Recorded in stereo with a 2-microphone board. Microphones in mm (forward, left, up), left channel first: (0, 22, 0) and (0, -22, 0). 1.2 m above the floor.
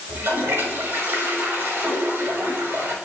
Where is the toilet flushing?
65° right (ahead or behind), 6.5 m.